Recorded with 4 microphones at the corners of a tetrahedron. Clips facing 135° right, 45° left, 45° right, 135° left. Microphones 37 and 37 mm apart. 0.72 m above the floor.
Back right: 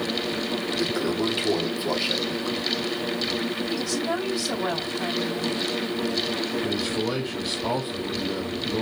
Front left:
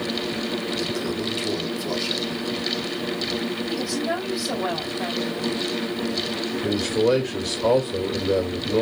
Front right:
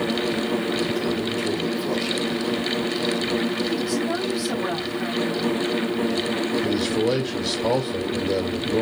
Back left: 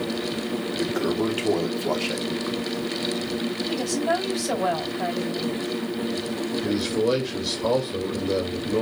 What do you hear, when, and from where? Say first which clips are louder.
0.8 s a toilet flushing: back right 2 dB, even; 165° left, 0.8 m
3.7 s a woman speaking: front left 2 dB, even; 120° left, 3 m
6.6 s a man speaking: front left 5 dB, back left 1 dB; 50° left, 2.5 m